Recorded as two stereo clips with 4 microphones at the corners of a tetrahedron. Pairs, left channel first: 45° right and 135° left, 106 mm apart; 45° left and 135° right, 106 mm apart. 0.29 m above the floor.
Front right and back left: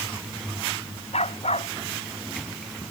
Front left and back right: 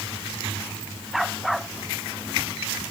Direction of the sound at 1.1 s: 45° right.